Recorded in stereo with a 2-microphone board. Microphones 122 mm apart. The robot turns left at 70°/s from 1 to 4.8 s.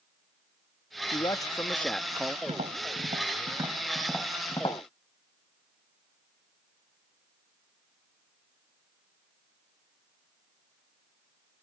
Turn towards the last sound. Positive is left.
turn(degrees=50)  # may be behind; listen again after turning